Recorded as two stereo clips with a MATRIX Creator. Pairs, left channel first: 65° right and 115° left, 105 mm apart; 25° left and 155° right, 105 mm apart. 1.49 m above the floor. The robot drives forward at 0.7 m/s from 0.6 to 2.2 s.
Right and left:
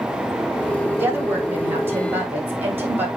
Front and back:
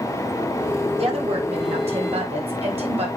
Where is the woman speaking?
175° right, 2 m.